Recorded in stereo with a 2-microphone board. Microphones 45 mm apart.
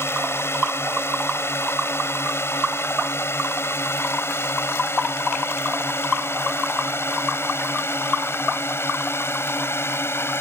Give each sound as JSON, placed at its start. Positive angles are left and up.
{"t": 0.0, "sound": "a drone", "side_deg": 65}